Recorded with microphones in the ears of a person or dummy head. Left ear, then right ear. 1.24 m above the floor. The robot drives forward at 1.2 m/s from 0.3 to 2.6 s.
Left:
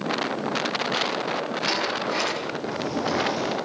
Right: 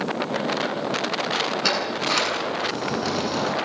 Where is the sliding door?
80° right, 9.5 m; by 3.5 s 85° right, 9 m.